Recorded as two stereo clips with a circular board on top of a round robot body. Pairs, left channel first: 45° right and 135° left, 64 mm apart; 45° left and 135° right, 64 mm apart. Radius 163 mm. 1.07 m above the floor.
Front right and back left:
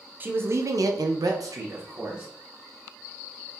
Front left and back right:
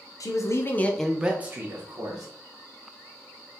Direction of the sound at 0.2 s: 75° left.